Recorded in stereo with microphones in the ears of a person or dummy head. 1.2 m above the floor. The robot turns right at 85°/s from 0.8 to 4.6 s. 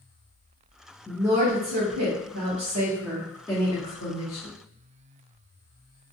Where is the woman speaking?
170° left, 0.6 m; by 4.5 s 110° left, 0.6 m.